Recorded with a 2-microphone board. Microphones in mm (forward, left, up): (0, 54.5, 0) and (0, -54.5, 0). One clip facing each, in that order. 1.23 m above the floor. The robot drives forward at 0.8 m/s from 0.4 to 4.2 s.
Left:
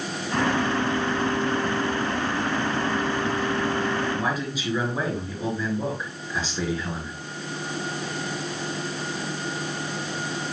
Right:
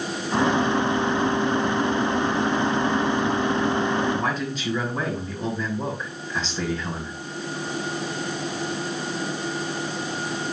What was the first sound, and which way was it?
A man speaking, 5° left (ahead or behind).